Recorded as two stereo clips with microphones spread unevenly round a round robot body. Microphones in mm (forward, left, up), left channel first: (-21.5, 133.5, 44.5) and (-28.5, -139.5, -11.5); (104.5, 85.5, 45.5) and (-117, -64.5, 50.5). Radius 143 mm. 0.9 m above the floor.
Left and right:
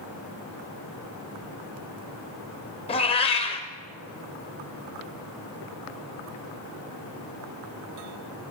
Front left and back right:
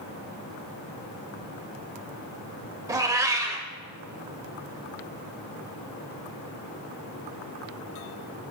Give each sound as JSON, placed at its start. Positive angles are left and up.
{"t": 2.9, "sound": "a cat meowing", "azimuth_deg": 140, "distance_m": 0.8}